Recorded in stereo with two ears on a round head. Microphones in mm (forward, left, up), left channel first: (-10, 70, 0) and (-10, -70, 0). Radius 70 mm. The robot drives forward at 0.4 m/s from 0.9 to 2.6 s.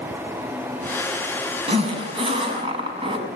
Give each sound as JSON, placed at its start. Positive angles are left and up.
{"t": 1.7, "sound": "a zipper", "side_deg": -40, "distance_m": 6.0}